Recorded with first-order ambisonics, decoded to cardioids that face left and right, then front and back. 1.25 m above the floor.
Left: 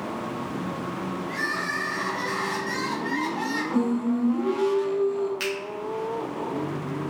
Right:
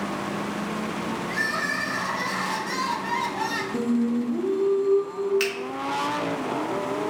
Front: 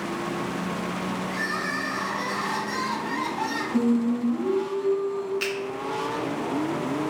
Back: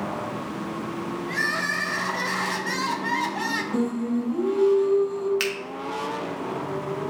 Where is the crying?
170° right, 1.0 m.